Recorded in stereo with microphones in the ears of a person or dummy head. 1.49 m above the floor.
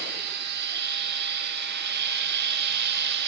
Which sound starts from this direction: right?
A machine running, at 0.0 s.